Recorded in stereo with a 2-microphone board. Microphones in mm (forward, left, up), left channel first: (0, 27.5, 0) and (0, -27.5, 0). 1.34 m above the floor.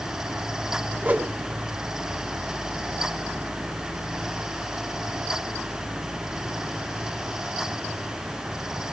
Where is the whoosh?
25° right (ahead or behind), 1.8 m.